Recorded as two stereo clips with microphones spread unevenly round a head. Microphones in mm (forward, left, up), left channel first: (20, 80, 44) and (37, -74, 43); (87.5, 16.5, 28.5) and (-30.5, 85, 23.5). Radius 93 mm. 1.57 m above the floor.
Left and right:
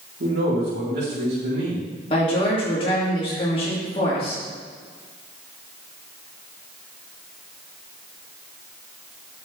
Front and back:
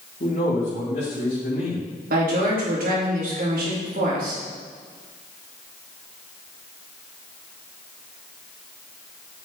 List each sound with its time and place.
0.2 s a man speaking: 75° right, 4.5 m
2.1 s a woman speaking: 155° left, 3 m